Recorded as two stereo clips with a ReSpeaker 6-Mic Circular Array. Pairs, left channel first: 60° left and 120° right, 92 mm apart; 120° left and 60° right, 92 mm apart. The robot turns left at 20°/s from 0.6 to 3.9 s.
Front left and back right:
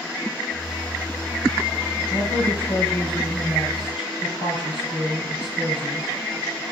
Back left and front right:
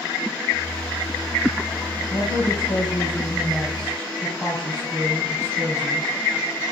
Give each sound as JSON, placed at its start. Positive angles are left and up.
{"t": 2.1, "sound": "a woman speaking", "azimuth_deg": 105, "distance_m": 10.0}